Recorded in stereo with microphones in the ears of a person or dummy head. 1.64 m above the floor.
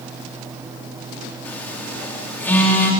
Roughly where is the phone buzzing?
Centre.